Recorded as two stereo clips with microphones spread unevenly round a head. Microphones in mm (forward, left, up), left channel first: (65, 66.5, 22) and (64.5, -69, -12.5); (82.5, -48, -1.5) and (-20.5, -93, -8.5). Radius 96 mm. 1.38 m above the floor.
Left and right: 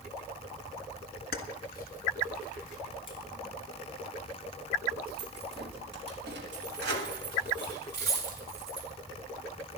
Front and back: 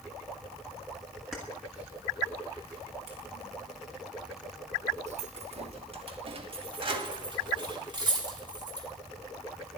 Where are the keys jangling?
115° left, 1.6 m; by 9.8 s 105° right, 3.5 m.